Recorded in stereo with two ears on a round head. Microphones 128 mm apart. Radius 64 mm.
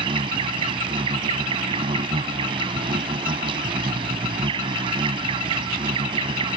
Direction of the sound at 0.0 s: 35° right (ahead or behind).